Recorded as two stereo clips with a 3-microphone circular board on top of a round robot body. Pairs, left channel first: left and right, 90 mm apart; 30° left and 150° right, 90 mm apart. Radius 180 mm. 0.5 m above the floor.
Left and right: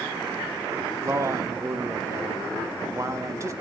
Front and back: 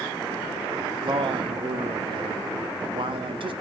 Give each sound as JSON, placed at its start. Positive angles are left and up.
{"t": 1.0, "sound": "a man speaking", "azimuth_deg": -145, "distance_m": 1.2}